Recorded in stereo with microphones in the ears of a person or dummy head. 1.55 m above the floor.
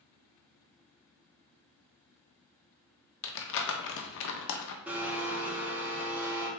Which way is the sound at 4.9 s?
10° right (ahead or behind).